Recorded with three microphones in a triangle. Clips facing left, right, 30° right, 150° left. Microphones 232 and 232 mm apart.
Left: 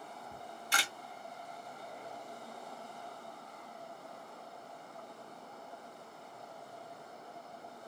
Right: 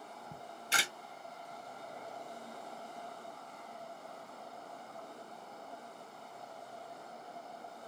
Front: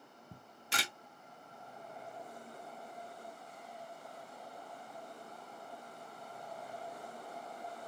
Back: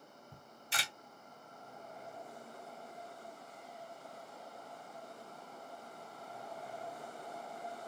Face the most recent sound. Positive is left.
turn(degrees=-20)